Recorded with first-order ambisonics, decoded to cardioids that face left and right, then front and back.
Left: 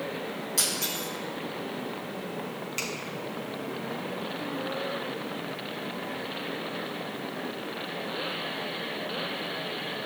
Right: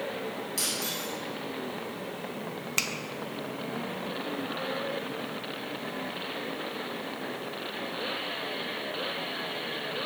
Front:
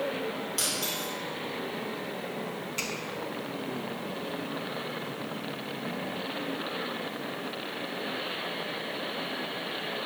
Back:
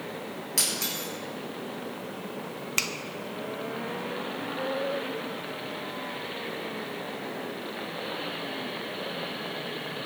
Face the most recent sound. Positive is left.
turn(degrees=-145)